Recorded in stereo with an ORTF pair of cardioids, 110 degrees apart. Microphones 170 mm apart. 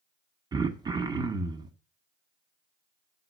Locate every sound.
0.5 s throat clearing: 25° right, 0.8 m